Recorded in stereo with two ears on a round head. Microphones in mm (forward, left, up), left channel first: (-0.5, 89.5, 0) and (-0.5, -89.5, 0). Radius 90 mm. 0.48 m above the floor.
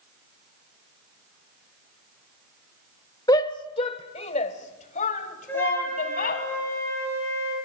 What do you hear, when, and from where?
3.3 s a shout: 20° left (ahead or behind), 1.1 m; by 6.4 s 45° left (ahead or behind), 3 m
5.5 s a flute: 10° left (ahead or behind), 9.5 m